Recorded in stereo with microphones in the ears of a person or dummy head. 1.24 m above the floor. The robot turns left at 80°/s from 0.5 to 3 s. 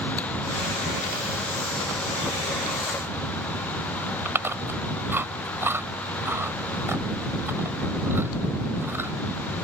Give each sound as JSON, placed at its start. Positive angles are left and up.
{"t": 4.2, "sound": "chewing", "side_deg": -10}